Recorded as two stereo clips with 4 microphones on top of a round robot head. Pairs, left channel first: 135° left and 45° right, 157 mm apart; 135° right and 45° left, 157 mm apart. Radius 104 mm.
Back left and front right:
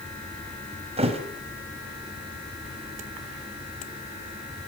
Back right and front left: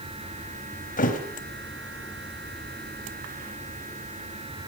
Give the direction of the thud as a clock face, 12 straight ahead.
3 o'clock.